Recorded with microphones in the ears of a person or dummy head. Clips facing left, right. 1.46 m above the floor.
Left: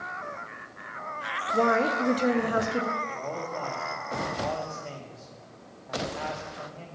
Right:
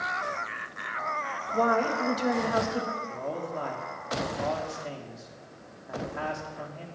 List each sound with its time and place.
1.5 s a woman speaking: 45° left (ahead or behind), 1.0 m
3.1 s a man speaking: 5° right (ahead or behind), 2 m